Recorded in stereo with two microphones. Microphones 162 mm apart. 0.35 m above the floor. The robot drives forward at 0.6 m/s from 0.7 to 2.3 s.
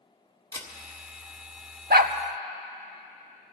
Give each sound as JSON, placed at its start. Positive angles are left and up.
{"t": 0.5, "sound": "a camera shutter", "side_deg": 20, "distance_m": 1.5}
{"t": 1.9, "sound": "a dog barking", "side_deg": -70, "distance_m": 0.6}